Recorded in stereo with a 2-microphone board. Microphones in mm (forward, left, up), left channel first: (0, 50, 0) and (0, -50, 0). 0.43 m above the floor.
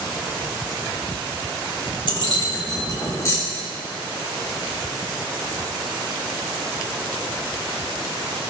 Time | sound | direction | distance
2.1 | keys jangling | 60° left (ahead or behind) | 1.4 m